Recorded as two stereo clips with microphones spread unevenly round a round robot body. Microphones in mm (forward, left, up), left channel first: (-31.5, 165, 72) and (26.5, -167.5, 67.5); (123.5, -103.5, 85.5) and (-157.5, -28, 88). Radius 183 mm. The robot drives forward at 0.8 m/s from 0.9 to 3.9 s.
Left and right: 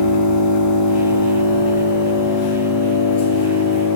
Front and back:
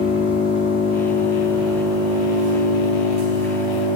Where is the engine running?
90° left, 1.2 m; by 4.0 s 155° left, 2.5 m.